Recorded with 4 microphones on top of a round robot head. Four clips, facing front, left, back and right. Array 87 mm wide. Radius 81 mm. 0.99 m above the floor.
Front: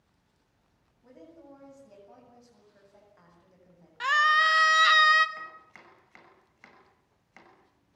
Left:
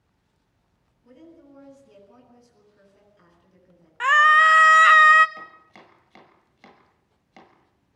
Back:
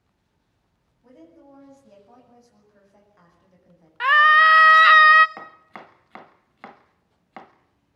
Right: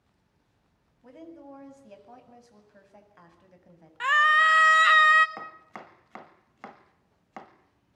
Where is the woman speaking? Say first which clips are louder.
Right 3 dB, back 2 dB; 95° right, 8.5 m.